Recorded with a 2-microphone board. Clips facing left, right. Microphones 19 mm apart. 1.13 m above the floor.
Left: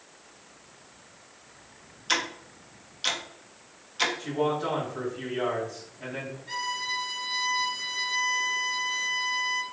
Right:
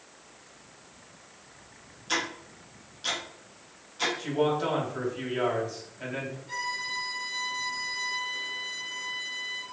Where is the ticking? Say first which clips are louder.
Left 2 dB; 40° left (ahead or behind), 0.7 m.